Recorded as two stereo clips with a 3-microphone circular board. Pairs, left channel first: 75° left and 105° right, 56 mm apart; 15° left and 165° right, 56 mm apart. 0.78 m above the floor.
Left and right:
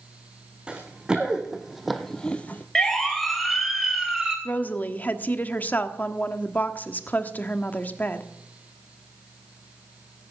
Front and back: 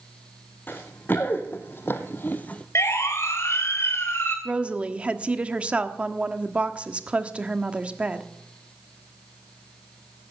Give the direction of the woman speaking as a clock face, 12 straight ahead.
8 o'clock.